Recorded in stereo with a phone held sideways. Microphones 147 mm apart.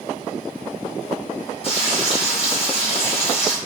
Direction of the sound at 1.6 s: 45° left (ahead or behind).